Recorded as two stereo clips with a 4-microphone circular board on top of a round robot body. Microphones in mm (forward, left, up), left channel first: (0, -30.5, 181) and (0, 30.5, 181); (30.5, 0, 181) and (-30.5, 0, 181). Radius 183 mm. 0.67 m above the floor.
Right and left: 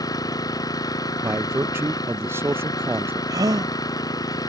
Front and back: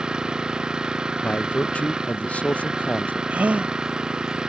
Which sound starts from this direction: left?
A gasp, at 3.3 s.